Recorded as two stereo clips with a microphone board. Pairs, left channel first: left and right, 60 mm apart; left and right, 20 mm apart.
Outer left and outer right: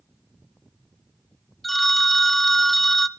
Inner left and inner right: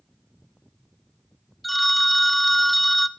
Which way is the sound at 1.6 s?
Centre (ahead or behind).